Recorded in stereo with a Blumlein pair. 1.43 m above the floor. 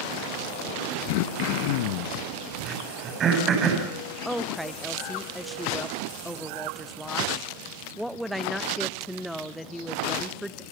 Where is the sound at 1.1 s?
45° left, 2.0 m.